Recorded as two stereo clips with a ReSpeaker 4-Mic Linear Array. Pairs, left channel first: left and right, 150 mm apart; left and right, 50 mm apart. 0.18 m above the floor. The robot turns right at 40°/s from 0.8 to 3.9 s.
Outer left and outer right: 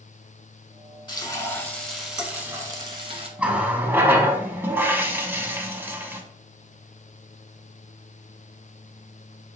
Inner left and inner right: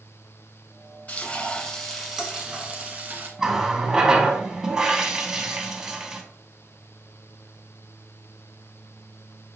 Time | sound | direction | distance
1.1 | frying | 140° left | 1.1 m
3.4 | a running tap | 10° right (ahead or behind) | 0.7 m